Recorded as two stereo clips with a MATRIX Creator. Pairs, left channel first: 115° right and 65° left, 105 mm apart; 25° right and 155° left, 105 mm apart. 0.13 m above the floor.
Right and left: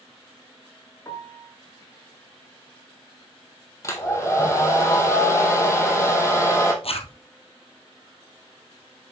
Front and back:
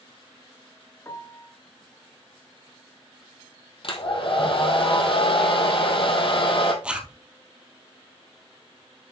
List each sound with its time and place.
1.1 s a piano: 70° right, 1.3 m
3.8 s a hair dryer: 50° right, 3 m
6.8 s a zipper: 125° right, 1.7 m